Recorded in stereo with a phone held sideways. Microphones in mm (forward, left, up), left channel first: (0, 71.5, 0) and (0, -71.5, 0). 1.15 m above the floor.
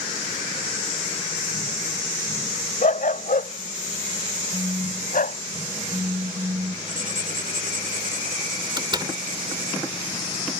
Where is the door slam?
30° right (ahead or behind).